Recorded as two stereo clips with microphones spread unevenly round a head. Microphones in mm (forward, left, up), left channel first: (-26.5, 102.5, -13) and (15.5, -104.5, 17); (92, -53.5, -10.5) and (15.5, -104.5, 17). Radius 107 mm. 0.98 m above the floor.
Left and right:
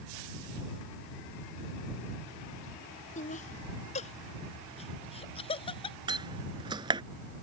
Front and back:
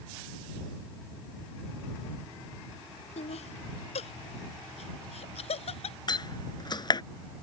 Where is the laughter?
45° left; by 6.0 s 35° left.